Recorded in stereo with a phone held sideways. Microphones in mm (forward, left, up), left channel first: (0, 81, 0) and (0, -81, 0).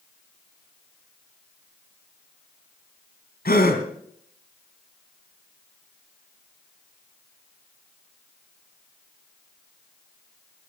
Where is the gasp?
75° left (ahead or behind), 2.5 m.